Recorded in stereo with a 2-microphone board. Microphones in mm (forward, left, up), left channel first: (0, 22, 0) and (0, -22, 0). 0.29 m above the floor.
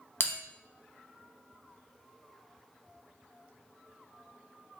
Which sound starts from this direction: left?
A bell, at 0.2 s.